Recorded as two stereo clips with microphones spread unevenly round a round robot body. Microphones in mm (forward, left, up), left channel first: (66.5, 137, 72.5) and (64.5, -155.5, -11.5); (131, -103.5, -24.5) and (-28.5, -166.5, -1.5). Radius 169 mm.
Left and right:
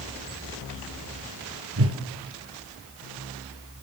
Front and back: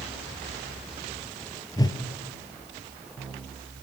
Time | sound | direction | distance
1.8 | a whoosh | 50° right | 2.5 m